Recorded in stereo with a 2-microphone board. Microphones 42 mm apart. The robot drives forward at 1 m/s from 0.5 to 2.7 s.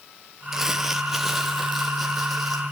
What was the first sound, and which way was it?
Crumpling, 10° right (ahead or behind).